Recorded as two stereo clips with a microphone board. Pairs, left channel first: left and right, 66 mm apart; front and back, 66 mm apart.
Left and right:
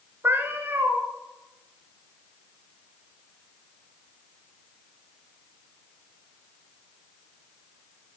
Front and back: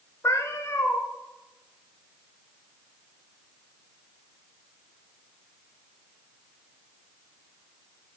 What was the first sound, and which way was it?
A cat meowing, 35° right.